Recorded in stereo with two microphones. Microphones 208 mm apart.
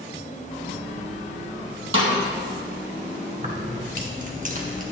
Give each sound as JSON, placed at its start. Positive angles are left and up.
{"t": 1.9, "sound": "a snare drum", "side_deg": -80, "distance_m": 2.0}
{"t": 3.4, "sound": "keys jangling", "side_deg": -40, "distance_m": 0.9}